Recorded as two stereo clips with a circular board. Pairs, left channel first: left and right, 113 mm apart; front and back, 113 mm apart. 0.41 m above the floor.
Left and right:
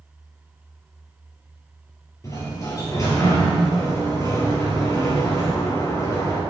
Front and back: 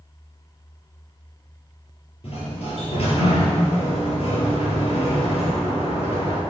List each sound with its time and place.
2.2 s a sliding door: 30° left, 4 m